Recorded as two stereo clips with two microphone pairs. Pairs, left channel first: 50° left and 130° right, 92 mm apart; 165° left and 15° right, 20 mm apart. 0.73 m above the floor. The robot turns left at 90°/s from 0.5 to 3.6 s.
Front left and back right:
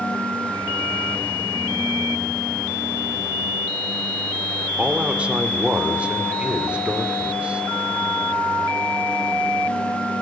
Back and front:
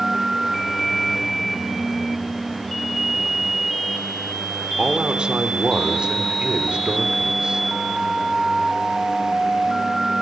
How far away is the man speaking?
About 2.5 m.